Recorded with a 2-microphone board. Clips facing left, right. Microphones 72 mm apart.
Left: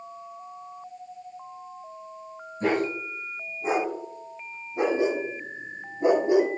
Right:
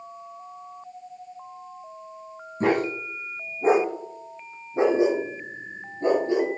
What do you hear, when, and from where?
2.6 s a dog barking: 55° right (ahead or behind), 3 m; by 6.5 s 20° left (ahead or behind), 1.5 m